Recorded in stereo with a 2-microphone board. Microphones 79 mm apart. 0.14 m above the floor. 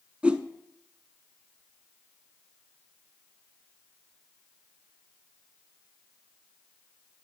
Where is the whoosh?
15° right (ahead or behind), 0.6 m.